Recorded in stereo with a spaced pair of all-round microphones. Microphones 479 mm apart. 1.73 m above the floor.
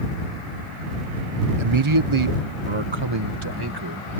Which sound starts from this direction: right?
A man speaking, at 1.6 s.